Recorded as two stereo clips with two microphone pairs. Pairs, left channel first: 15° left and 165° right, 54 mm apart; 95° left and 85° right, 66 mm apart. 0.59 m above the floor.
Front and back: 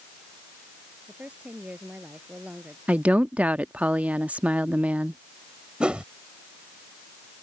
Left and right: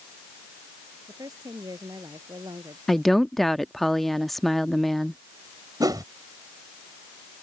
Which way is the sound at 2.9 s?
Straight behind.